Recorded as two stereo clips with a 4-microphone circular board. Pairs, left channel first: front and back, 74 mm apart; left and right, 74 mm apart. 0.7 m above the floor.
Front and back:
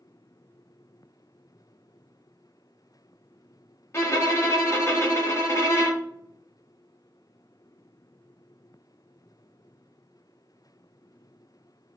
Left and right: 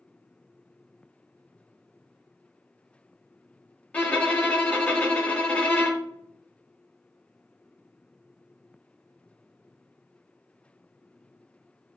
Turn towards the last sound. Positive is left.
turn(degrees=25)